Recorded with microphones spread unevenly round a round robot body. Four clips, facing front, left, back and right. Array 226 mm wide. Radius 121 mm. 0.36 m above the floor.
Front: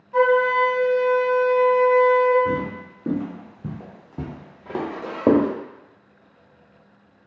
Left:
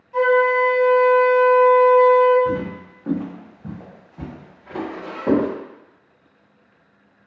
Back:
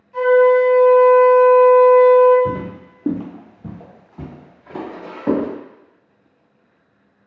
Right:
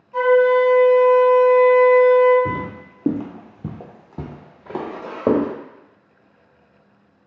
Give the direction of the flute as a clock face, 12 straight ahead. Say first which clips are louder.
Right 2 dB, back 6 dB; 12 o'clock.